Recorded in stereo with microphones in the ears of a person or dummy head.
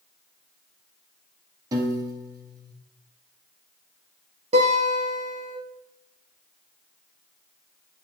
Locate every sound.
1.7 s a piano: 20° right (ahead or behind), 1.5 m
4.5 s a guitar: 35° right (ahead or behind), 4 m